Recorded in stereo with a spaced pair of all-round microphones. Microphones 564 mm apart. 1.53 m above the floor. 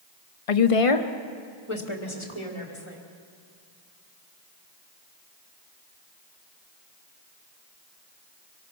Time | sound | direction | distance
0.5 | a woman speaking | 70° left (ahead or behind) | 0.7 m